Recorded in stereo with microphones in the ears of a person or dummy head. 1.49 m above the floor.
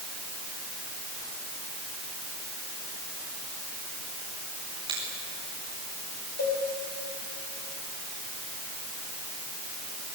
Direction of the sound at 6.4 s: 45° left (ahead or behind).